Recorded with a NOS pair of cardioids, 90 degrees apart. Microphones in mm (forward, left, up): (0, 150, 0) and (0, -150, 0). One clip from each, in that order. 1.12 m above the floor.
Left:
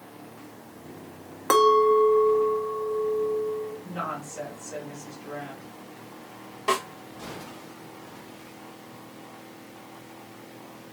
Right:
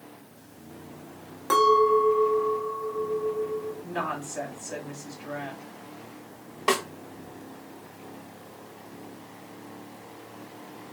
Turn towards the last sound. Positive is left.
turn(degrees=-30)